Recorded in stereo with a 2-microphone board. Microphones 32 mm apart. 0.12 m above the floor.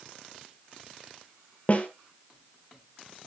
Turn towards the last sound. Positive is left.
turn(degrees=45)  # may be behind; listen again after turning